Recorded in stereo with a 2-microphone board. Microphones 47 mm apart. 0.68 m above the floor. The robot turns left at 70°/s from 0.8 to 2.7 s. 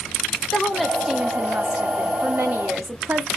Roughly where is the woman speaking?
Ahead.